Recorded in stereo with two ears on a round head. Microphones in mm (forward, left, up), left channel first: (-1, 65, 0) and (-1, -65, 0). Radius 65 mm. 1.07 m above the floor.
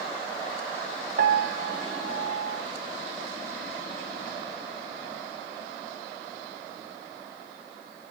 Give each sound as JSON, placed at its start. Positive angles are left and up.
{"t": 1.2, "sound": "a piano", "side_deg": -65, "distance_m": 1.4}